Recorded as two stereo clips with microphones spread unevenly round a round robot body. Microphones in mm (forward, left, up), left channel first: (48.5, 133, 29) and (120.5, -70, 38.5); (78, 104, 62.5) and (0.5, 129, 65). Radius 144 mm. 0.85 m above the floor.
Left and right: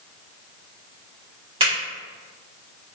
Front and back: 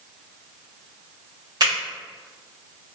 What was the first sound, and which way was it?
A finger snap, 140° right.